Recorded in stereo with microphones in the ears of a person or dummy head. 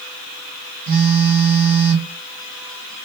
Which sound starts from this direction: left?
A phone buzzing, at 0.9 s.